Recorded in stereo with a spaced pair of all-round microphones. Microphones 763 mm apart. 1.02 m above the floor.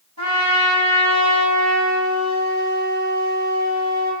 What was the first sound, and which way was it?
A trumpet, 20° right (ahead or behind).